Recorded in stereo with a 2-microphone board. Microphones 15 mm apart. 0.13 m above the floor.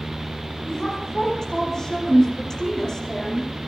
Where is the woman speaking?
35° left (ahead or behind), 7.5 m.